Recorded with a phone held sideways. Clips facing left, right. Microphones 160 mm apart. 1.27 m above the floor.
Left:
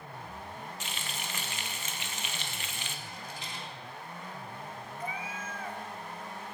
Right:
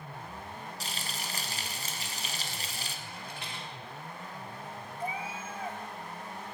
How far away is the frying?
About 0.6 m.